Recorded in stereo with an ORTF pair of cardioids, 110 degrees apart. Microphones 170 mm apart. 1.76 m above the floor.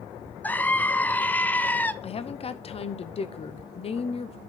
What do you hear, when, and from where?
0.4 s a scream: 10° left, 0.7 m
2.0 s a woman speaking: 35° left, 0.9 m